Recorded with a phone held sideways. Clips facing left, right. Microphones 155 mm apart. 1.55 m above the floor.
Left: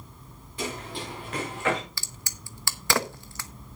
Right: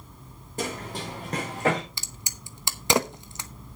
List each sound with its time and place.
0.6 s running footsteps: 45° right (ahead or behind), 6 m; by 1.8 s 35° right (ahead or behind), 5.5 m
2.0 s a crack: 20° right (ahead or behind), 0.9 m